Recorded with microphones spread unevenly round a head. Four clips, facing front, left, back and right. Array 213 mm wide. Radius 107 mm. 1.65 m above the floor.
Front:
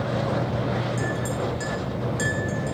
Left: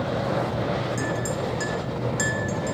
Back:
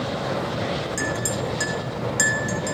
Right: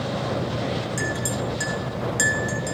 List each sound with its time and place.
1.0 s a clink: 145° right, 1.2 m